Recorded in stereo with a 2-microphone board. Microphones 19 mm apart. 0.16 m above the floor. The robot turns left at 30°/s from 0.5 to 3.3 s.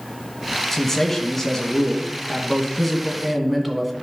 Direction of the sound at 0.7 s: 20° left (ahead or behind).